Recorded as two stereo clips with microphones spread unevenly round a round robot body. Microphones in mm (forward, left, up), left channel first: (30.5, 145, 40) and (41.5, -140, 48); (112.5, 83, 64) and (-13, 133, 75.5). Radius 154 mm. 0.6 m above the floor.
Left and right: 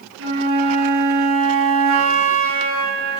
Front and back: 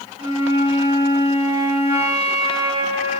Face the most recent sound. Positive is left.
turn(degrees=-135)